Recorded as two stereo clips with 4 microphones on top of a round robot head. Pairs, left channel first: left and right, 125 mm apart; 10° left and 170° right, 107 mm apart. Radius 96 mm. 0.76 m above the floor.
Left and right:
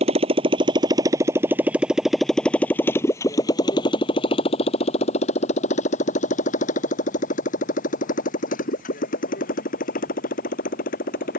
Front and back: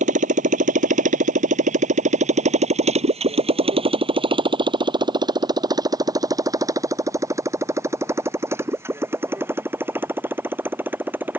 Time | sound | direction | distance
0.0 | a motorcycle | 145° right | ?